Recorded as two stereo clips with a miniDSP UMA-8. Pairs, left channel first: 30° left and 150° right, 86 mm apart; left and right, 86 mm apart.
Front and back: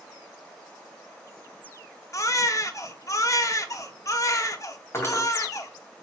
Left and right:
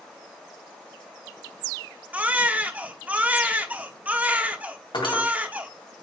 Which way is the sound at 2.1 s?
20° right.